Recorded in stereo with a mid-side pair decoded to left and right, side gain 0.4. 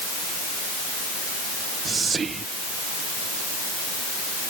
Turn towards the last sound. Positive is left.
turn(degrees=-45)